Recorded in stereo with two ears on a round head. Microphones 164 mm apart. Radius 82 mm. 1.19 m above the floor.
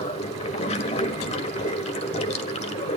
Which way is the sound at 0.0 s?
40° left (ahead or behind).